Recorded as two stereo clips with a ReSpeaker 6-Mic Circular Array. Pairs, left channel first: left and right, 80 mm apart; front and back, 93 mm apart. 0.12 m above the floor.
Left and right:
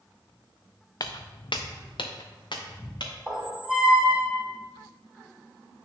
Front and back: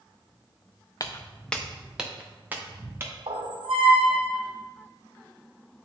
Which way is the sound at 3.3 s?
170° right.